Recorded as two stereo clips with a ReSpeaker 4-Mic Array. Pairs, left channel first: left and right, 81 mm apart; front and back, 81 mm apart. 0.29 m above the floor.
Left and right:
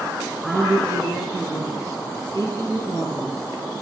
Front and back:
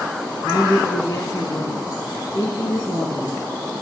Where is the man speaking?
45° right, 5 m.